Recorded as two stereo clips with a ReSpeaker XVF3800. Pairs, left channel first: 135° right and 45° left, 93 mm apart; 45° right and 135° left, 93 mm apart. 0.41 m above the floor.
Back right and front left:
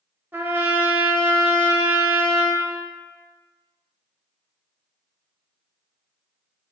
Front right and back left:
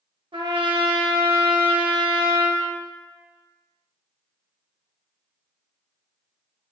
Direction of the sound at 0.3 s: 110° left.